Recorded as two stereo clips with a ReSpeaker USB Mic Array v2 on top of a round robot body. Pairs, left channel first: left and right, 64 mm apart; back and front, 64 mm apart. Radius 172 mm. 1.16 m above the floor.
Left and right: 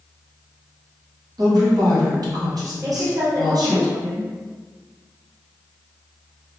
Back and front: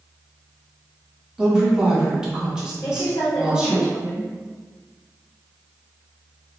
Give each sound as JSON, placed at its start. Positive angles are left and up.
{"t": 1.4, "sound": "a woman speaking", "azimuth_deg": -80, "distance_m": 1.3}
{"t": 2.8, "sound": "a woman speaking", "azimuth_deg": -145, "distance_m": 1.0}